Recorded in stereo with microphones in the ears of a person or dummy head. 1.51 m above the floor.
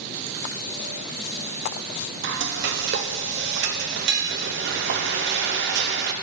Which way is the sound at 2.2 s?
50° right (ahead or behind).